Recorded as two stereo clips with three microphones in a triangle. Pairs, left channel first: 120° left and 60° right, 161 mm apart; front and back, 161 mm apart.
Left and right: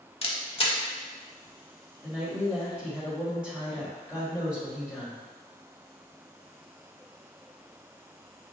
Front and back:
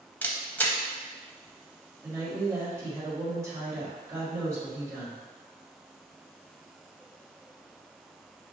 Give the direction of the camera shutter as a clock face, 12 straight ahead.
9 o'clock.